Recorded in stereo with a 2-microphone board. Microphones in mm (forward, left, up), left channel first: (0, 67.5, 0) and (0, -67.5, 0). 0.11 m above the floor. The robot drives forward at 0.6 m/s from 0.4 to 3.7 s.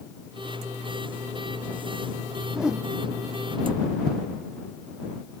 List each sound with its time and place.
2.5 s a whoosh: 5° right (ahead or behind)